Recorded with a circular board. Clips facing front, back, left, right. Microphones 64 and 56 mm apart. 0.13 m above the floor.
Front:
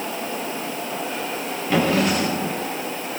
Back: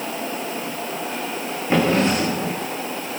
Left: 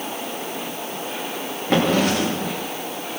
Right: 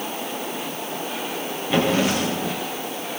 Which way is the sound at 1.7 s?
115° left.